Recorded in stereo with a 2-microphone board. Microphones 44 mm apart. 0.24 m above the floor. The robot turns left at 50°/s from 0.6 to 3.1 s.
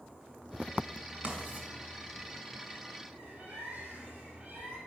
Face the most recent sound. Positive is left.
turn(degrees=-30)  # may be behind; listen again after turning